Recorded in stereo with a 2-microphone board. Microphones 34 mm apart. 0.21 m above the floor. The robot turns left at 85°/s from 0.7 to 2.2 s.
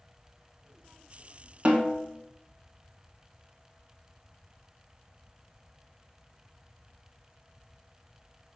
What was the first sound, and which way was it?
A snare drum, 40° right.